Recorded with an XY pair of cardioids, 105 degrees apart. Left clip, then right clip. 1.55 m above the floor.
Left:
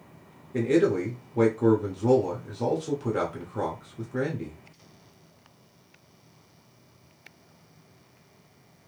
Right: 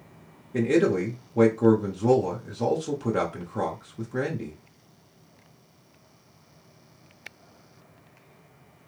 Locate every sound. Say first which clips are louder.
0.5 s a man speaking: right 1 dB; 15° right, 0.8 m